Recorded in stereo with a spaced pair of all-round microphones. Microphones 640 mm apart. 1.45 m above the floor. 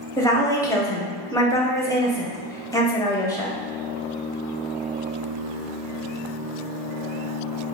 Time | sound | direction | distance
0.2 | a woman speaking | 5° left (ahead or behind) | 0.9 m